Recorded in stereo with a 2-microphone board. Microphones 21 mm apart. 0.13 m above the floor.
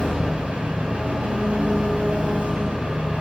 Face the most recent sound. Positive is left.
turn(degrees=-75)  # may be behind; listen again after turning